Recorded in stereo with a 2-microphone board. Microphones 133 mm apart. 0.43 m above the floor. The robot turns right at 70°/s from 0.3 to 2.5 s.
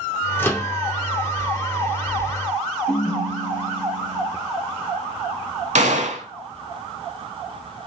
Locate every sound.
0.4 s a microwave: 15° left (ahead or behind), 0.5 m; by 0.7 s 20° left (ahead or behind), 0.5 m
2.9 s a ringtone: 65° left (ahead or behind), 1.3 m
5.8 s a gunshot: 65° right (ahead or behind), 0.5 m